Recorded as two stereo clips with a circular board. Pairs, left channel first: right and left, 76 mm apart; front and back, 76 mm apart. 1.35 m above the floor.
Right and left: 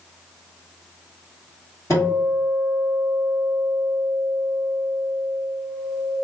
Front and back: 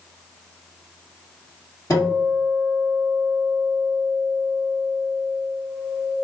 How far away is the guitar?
About 2.0 m.